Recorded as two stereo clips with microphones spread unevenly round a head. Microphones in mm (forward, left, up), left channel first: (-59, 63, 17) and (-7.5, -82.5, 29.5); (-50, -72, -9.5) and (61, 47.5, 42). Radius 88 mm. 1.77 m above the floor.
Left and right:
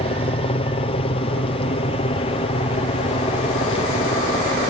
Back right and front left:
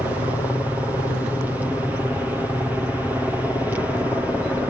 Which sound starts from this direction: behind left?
A helicopter, at 0.0 s.